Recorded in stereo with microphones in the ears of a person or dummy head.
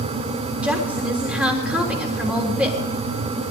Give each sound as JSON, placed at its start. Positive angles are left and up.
{"t": 0.6, "sound": "a woman speaking", "side_deg": -5, "distance_m": 3.5}